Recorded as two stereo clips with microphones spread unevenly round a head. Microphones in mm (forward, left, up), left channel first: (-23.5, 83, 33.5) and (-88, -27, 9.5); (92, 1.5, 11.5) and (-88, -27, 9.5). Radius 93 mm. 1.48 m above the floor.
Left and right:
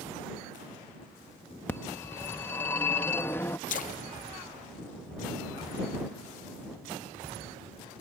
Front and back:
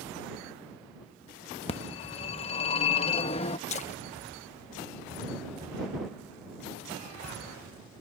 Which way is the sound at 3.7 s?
65° left.